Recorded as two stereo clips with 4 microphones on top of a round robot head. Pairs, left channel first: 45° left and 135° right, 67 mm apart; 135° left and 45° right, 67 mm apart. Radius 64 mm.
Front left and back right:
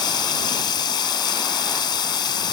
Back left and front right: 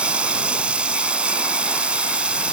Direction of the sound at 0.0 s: 30° left.